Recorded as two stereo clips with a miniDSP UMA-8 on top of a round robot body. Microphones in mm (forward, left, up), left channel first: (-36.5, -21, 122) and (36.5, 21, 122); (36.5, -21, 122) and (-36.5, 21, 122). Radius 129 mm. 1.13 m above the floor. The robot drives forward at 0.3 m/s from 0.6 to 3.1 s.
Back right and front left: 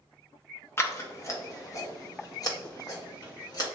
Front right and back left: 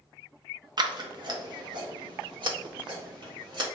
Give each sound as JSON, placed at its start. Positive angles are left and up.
{"t": 0.8, "sound": "scissors", "azimuth_deg": 155, "distance_m": 0.8}